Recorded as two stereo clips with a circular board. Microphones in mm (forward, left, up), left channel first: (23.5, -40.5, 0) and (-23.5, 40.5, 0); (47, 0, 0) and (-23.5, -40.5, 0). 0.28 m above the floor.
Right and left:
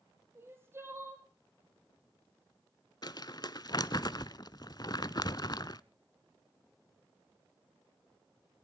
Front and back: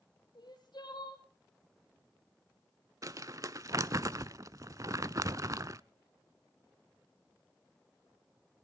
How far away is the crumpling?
About 0.6 m.